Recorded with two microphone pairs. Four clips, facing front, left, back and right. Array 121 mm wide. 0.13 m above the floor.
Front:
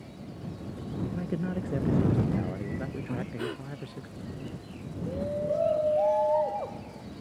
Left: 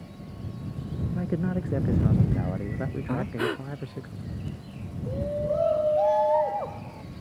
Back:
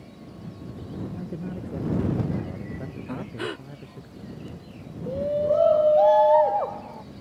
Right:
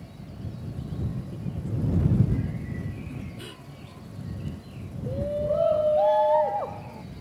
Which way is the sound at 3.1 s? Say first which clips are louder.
Left 12 dB, back 5 dB; 115° left.